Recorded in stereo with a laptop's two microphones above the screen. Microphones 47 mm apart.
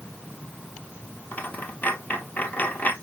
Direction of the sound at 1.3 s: 35° left (ahead or behind).